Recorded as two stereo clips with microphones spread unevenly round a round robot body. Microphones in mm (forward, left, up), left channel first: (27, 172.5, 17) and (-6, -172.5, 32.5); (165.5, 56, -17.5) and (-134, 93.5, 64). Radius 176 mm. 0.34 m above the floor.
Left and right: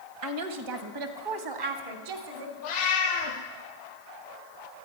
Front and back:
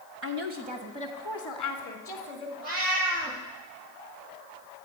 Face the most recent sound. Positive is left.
turn(degrees=135)